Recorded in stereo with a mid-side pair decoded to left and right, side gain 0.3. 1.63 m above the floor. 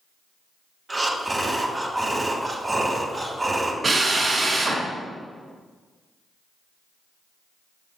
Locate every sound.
0.9 s breathing: 30° right, 1.7 m
3.8 s a drill: 60° right, 2.5 m